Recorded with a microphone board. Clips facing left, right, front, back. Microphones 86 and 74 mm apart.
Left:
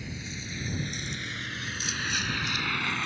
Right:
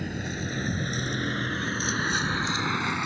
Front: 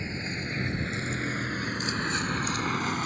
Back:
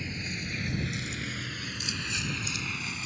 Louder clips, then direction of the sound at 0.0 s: Right 8 dB, front 3 dB; 60° right.